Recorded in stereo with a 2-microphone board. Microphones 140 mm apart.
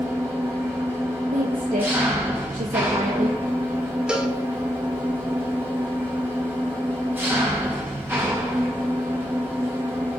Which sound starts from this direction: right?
A woman speaking, at 1.3 s.